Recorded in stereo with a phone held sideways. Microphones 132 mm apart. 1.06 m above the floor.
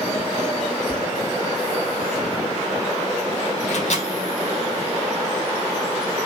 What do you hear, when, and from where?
0.9 s tapping: 10° left (ahead or behind), 2.5 m
3.7 s a microwave: 60° left (ahead or behind), 2.5 m